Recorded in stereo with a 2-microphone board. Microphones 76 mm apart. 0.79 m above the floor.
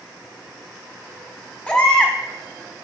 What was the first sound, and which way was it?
A baby crying, 15° left (ahead or behind).